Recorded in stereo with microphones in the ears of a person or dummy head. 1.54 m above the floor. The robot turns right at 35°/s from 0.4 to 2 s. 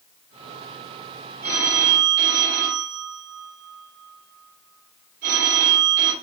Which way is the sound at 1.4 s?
40° right (ahead or behind).